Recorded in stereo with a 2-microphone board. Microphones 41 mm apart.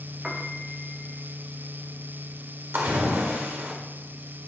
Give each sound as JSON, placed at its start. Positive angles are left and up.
{"t": 0.2, "sound": "a piano", "side_deg": -15, "distance_m": 1.1}
{"t": 2.7, "sound": "a splash", "side_deg": -65, "distance_m": 1.8}